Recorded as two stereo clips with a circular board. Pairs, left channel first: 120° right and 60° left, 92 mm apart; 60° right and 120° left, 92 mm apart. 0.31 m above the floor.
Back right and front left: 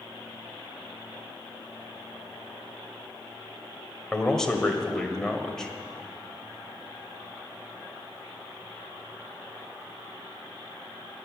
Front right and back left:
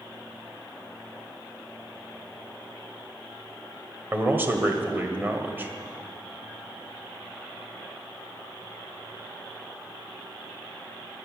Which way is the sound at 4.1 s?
160° left.